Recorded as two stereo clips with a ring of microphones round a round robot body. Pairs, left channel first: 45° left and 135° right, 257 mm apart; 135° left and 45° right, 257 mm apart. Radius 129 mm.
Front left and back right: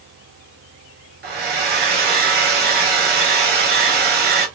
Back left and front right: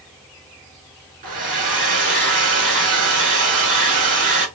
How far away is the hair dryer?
About 1.6 m.